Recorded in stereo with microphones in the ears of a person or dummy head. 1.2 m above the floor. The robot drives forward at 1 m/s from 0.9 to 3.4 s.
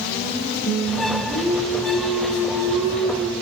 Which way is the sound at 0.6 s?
10° right (ahead or behind).